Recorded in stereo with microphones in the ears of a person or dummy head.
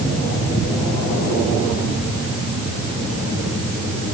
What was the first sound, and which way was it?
Only background noise.